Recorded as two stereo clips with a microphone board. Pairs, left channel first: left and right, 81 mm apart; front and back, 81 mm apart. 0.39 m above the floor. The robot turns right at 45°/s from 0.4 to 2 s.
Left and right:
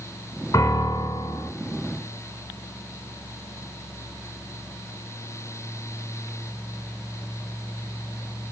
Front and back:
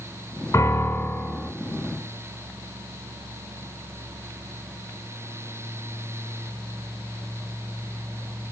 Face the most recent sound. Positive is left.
turn(degrees=120)